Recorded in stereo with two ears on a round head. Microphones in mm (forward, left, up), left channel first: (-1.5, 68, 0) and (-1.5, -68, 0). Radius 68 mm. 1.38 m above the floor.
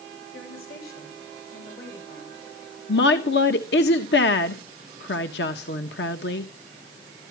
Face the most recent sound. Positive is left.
turn(degrees=80)